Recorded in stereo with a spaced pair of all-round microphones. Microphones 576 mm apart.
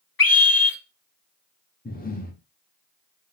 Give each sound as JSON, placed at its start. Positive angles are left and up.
{"t": 0.2, "sound": "a scream", "side_deg": 40, "distance_m": 0.9}
{"t": 1.9, "sound": "breathing", "side_deg": 15, "distance_m": 0.8}